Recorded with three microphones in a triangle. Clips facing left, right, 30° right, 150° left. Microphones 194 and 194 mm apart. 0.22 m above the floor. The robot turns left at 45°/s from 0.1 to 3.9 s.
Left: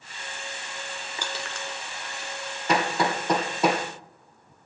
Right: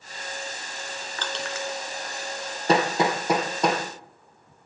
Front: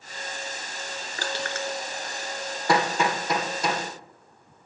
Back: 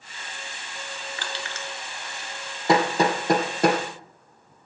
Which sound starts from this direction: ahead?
Crushing, at 1.2 s.